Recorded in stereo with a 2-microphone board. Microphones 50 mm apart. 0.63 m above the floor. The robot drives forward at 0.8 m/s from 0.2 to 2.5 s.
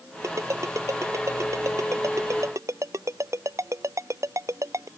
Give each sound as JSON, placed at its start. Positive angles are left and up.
{"t": 0.2, "sound": "a ringtone", "side_deg": -80}